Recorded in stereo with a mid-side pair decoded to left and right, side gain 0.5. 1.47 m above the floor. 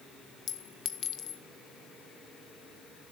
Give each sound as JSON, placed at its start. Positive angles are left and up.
{"t": 0.5, "sound": "a clink", "azimuth_deg": 55, "distance_m": 1.4}